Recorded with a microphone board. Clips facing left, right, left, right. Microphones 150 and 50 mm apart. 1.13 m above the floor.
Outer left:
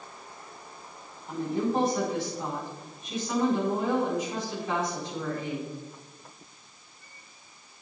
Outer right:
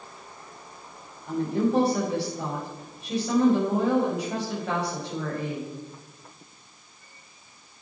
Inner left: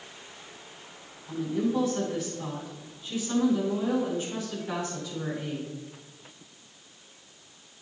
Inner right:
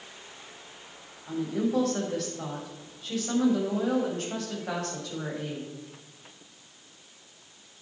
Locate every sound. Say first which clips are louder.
1.3 s a woman speaking: outer right 4 dB, even; 75° right (ahead or behind), 5.5 m